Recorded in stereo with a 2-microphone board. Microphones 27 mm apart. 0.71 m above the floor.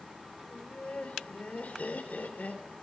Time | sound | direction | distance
0.5 | laughter | 60° left (ahead or behind) | 3 m